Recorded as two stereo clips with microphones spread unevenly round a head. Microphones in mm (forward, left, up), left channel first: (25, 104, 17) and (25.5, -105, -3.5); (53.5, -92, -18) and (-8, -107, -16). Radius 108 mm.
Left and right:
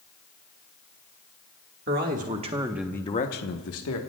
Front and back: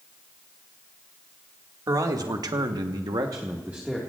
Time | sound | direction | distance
1.9 | a man speaking | 140° right | 2 m